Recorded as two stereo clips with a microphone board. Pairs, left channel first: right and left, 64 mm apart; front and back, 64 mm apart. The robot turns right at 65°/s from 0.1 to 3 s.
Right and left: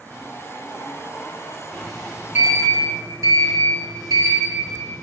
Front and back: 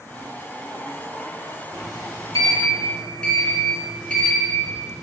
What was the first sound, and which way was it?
A sliding door, 10° right.